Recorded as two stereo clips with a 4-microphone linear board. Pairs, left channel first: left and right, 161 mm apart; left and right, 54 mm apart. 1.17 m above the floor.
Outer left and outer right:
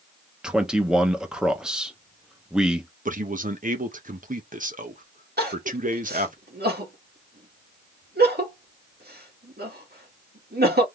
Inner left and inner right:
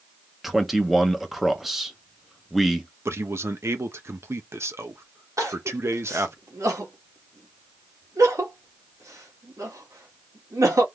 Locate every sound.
0.4 s a man speaking: 5° right (ahead or behind), 1.2 m
3.0 s a man speaking: 55° right (ahead or behind), 1.1 m
5.4 s crying: 80° right, 1.8 m